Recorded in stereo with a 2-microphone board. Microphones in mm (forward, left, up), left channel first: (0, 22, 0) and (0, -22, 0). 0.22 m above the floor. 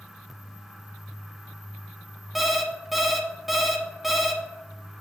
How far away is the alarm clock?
About 1.0 m.